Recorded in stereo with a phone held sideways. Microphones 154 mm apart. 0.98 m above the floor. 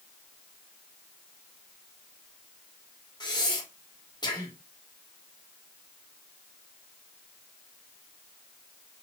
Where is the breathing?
25° left (ahead or behind), 0.9 m.